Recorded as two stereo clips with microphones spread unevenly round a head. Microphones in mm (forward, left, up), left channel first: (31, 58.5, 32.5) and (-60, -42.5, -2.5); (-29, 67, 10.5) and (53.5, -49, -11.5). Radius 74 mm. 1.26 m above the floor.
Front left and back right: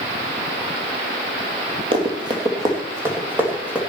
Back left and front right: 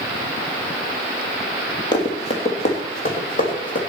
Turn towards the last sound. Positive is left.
turn(degrees=140)